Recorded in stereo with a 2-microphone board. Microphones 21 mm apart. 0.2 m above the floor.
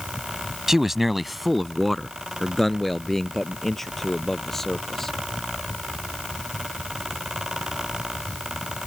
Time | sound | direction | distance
0.7 | a man speaking | 15° right (ahead or behind) | ?